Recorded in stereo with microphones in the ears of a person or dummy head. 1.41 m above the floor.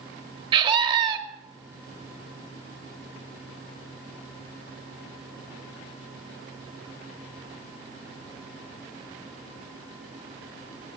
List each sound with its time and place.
0.5 s a scream: 30° right (ahead or behind), 2.5 m